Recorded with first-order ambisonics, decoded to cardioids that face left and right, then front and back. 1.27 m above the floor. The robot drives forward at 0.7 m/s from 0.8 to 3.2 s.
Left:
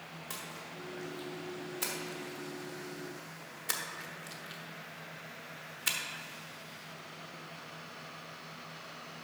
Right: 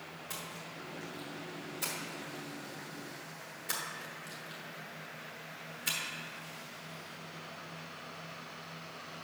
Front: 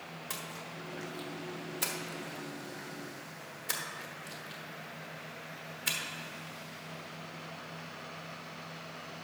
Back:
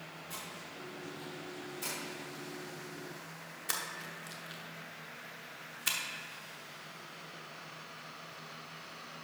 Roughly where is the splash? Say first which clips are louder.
Even, front 4 dB; ahead.